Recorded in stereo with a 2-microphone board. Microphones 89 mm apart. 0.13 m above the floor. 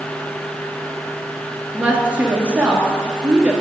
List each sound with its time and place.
1.7 s a woman speaking: 20° right (ahead or behind), 1.8 m